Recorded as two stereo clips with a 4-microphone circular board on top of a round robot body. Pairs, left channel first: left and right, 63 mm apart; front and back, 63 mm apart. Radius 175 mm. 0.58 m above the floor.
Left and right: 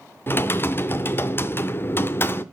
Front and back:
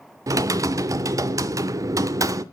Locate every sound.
0.3 s typing on a keyboard: 145° left, 0.5 m